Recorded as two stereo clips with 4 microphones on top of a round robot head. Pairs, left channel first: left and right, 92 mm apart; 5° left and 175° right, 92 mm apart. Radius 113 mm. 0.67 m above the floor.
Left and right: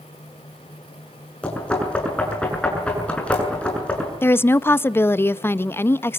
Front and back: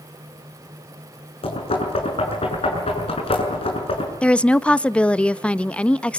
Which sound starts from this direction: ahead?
Knocking, at 1.4 s.